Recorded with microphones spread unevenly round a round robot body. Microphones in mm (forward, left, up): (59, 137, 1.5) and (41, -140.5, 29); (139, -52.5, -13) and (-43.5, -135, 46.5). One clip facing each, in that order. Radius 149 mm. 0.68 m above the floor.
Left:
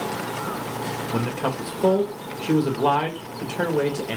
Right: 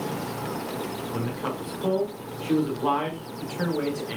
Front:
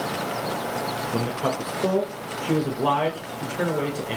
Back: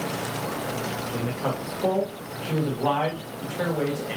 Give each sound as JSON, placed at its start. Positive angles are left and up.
{"t": 1.1, "sound": "a man speaking", "azimuth_deg": 75, "distance_m": 2.5}